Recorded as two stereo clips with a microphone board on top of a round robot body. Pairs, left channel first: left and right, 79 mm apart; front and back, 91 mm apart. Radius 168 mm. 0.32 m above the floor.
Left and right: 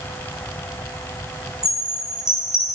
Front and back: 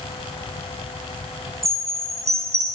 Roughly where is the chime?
Behind.